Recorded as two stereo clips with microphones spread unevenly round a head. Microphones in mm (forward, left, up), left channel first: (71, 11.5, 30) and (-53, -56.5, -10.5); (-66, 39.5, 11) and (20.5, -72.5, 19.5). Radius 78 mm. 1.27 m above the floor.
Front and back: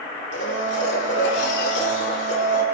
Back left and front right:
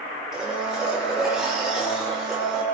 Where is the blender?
35° left, 5 m.